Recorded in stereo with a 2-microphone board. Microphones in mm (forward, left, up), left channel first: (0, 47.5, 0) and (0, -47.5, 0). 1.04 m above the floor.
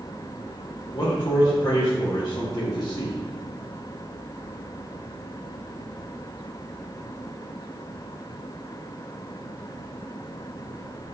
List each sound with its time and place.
0.9 s a man speaking: 45° left (ahead or behind), 0.6 m